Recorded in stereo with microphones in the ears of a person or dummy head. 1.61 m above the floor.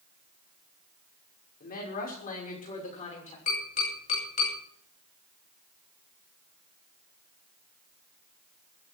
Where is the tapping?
45° left (ahead or behind), 9.5 m.